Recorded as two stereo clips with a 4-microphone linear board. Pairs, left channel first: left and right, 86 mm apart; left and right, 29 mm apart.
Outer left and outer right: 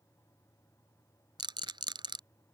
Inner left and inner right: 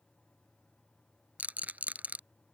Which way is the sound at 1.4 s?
80° right.